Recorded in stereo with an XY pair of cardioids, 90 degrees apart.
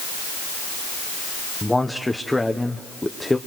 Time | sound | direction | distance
1.6 | a man speaking | 10° left | 1.0 m